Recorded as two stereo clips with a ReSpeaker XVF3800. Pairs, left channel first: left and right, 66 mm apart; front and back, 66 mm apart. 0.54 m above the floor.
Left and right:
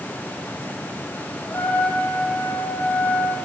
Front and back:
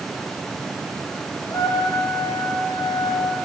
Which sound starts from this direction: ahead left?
A trumpet, at 1.5 s.